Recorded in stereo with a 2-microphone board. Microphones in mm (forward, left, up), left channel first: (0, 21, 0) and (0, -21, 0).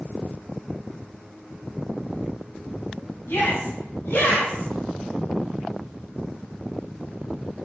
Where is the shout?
75° left (ahead or behind), 3.5 m.